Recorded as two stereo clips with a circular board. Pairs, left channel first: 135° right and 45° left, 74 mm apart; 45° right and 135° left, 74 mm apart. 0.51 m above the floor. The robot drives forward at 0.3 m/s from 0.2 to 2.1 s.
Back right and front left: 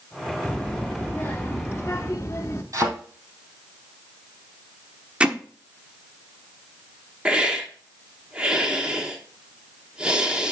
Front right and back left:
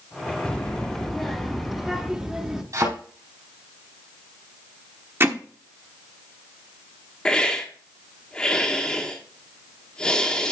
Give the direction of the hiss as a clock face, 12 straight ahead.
12 o'clock.